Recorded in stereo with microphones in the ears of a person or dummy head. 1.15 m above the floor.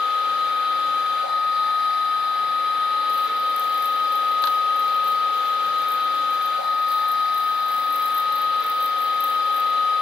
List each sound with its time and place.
0.0 s a machine running: centre (ahead or behind), 4 m